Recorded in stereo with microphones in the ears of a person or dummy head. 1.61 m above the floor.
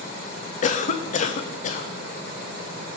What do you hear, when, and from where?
0.6 s a cough: 45° left (ahead or behind), 0.5 m